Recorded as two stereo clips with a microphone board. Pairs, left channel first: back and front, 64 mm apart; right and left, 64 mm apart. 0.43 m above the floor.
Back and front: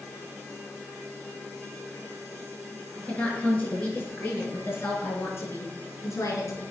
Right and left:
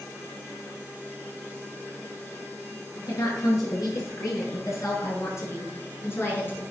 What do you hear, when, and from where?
3.0 s a woman speaking: 110° right, 7 m; by 6.6 s 150° right, 6 m